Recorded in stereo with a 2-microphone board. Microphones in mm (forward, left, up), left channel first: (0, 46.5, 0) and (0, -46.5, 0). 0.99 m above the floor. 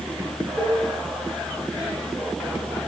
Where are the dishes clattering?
5° left (ahead or behind), 9.5 m.